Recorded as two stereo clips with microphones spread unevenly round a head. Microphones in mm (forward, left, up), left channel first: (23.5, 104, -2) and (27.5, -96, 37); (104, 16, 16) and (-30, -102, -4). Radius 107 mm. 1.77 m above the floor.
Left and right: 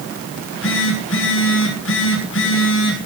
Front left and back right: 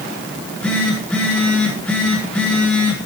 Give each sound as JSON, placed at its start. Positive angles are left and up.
{"t": 0.4, "sound": "a phone buzzing", "azimuth_deg": 125, "distance_m": 4.5}